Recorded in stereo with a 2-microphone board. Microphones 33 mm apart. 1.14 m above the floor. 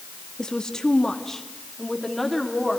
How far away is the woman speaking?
About 1.8 m.